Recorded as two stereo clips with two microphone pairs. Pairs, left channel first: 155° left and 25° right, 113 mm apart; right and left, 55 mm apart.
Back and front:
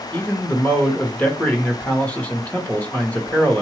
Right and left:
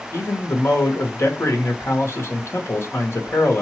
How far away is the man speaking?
About 1.2 m.